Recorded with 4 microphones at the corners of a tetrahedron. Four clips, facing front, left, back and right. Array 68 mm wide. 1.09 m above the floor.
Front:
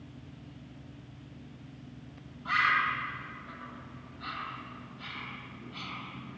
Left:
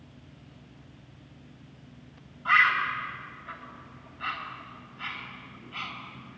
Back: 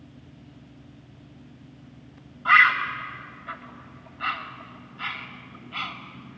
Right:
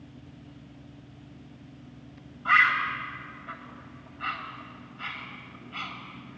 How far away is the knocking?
I don't hear knocking.